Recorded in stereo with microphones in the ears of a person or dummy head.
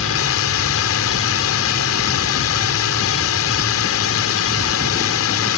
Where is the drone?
75° left (ahead or behind).